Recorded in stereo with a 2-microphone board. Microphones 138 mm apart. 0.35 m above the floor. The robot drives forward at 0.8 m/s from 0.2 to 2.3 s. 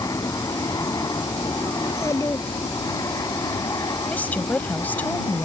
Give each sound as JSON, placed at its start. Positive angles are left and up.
{"t": 0.0, "sound": "an aircraft", "side_deg": 25}
{"t": 1.8, "sound": "a child speaking", "side_deg": 20}
{"t": 4.1, "sound": "a woman speaking", "side_deg": 10}